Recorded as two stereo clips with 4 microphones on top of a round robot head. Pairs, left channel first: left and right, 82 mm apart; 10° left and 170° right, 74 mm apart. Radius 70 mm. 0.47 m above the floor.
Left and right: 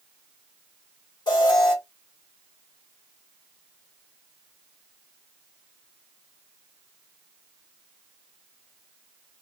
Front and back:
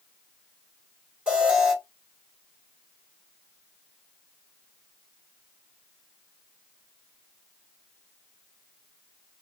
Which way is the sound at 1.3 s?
115° left.